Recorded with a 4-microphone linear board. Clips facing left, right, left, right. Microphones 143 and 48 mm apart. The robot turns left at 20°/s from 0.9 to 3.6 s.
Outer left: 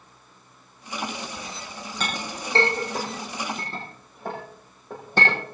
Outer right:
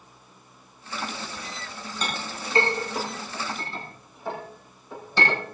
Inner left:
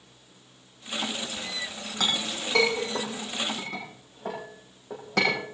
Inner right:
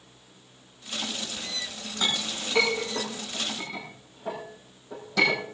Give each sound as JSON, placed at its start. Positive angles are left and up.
{"t": 2.0, "sound": "a clink", "side_deg": 80, "distance_m": 7.0}